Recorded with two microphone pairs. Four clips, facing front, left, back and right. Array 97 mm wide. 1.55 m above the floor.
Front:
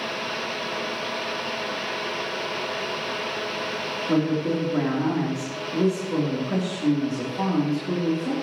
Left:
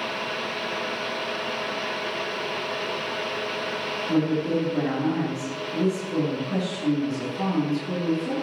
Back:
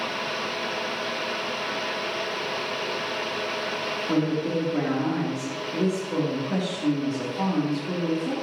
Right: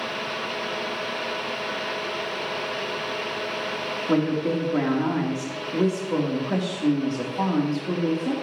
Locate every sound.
4.1 s a woman speaking: 80° right, 3.5 m